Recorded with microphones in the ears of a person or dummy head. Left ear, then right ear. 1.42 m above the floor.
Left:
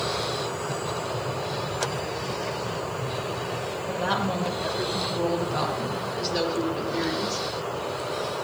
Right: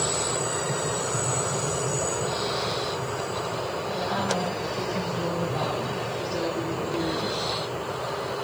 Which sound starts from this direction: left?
A woman speaking, at 3.9 s.